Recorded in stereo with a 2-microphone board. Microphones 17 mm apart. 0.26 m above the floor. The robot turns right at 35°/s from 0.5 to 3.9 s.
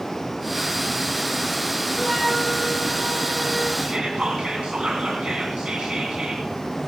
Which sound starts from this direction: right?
Whispering, at 3.8 s.